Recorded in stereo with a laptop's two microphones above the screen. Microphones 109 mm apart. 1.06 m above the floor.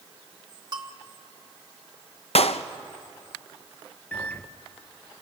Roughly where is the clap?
Left.